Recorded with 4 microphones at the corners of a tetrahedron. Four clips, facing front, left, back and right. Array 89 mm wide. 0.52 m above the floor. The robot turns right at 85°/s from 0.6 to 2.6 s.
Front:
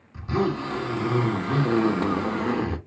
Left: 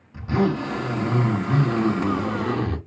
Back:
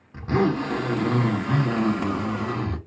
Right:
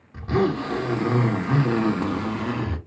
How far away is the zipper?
About 1.5 m.